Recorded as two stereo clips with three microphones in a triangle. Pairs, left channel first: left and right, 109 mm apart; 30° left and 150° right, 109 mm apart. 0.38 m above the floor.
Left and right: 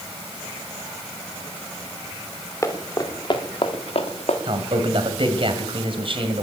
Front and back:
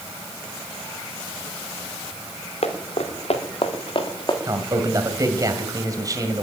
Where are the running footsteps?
25° left, 3.5 m; by 4.4 s 75° left, 3 m.